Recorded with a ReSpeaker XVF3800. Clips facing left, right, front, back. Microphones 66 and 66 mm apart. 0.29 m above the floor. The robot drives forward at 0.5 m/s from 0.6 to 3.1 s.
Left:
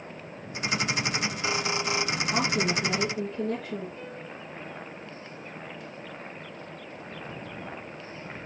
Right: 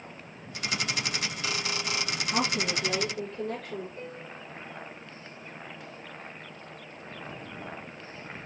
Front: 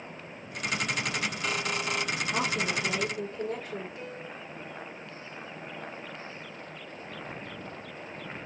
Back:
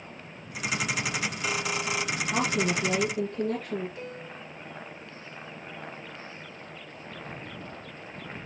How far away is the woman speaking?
About 7.5 m.